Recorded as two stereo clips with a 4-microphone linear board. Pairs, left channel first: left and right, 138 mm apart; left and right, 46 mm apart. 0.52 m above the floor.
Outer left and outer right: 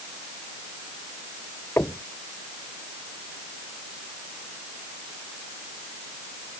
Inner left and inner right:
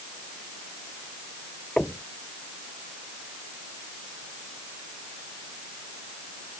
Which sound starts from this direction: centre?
Knocking, at 1.8 s.